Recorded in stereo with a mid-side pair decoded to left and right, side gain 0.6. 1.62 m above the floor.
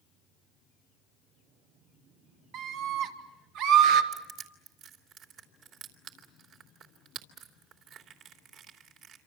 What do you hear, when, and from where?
2.5 s a scream: 65° right, 3 m; by 4.0 s 80° right, 2.5 m
4.1 s crushing: 60° right, 3 m